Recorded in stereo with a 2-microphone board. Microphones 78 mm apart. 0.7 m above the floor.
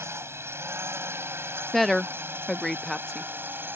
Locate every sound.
0.0 s a drone: 35° right (ahead or behind); by 3.8 s 25° right (ahead or behind)
1.7 s a woman speaking: centre (ahead or behind)